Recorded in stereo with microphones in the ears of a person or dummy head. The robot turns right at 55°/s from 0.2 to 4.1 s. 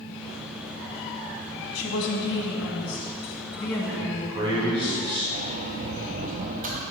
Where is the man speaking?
15° right (ahead or behind), 1.6 m; by 5.2 s 25° right (ahead or behind), 1.6 m.